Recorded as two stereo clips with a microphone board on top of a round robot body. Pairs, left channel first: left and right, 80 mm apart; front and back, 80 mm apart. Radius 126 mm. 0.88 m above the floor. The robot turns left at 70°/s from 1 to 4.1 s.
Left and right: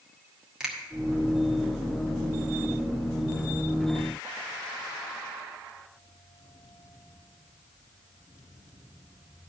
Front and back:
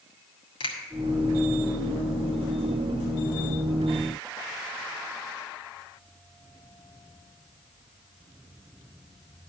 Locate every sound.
0.6 s a finger snap: 10° right, 1.8 m